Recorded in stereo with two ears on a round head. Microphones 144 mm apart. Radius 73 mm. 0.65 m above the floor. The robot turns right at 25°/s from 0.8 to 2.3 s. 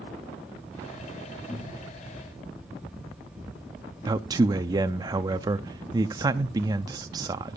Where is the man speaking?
25° right (ahead or behind), 0.6 m.